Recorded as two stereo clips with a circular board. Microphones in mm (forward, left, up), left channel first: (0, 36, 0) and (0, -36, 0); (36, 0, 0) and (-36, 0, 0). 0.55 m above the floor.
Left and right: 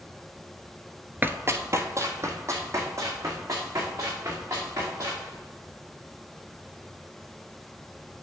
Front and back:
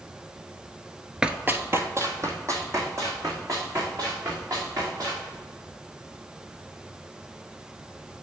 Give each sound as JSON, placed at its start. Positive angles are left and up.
{"t": 1.2, "sound": "running footsteps", "azimuth_deg": -110, "distance_m": 0.5}